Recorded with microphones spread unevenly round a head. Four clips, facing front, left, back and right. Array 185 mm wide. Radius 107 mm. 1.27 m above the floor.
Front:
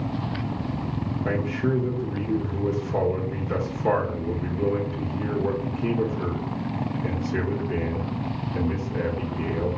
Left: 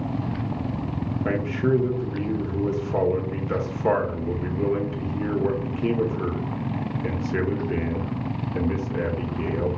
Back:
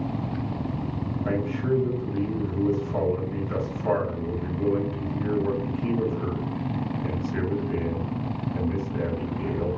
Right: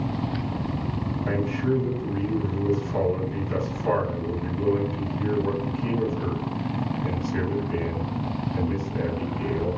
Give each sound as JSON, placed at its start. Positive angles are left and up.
{"t": 1.2, "sound": "a man speaking", "azimuth_deg": 60, "distance_m": 1.1}